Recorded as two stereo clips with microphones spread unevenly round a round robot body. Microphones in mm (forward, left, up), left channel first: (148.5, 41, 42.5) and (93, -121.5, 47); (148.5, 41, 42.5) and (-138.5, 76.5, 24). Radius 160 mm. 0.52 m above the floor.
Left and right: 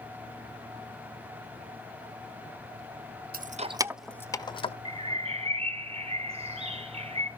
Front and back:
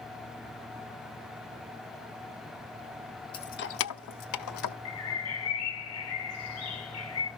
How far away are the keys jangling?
About 1.1 m.